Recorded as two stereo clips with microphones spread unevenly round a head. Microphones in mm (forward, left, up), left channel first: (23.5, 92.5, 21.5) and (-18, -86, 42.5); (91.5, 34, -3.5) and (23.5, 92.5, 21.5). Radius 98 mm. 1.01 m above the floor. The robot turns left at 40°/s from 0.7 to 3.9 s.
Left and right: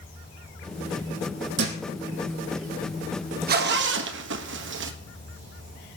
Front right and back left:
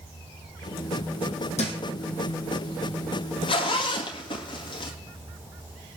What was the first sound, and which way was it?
An insect, 20° right.